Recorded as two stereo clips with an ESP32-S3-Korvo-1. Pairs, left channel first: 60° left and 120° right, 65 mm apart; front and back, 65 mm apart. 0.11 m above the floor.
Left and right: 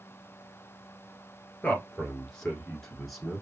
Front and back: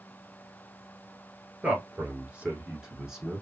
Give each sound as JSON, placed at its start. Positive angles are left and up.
{"t": 1.6, "sound": "a man speaking", "azimuth_deg": 125, "distance_m": 1.5}